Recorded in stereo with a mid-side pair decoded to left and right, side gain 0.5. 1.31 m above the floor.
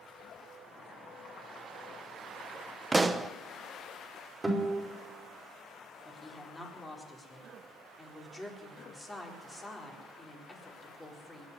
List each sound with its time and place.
0.5 s boiling: 50° left, 7.5 m
2.9 s a pop: 20° right, 0.8 m
4.4 s a guitar: 10° right, 4.5 m
6.0 s a woman speaking: 15° left, 4 m